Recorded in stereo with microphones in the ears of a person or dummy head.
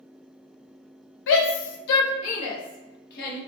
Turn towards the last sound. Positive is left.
turn(degrees=50)  # may be behind; listen again after turning